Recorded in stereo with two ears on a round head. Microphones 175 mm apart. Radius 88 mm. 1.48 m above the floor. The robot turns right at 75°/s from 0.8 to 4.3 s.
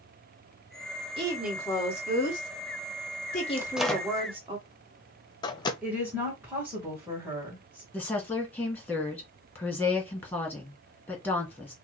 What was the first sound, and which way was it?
A woman speaking, 25° right.